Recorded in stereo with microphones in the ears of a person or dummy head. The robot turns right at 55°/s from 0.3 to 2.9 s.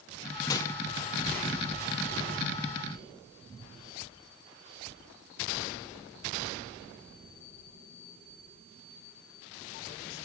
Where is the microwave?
25° left (ahead or behind), 0.8 m; by 0.7 s 10° left (ahead or behind), 0.8 m.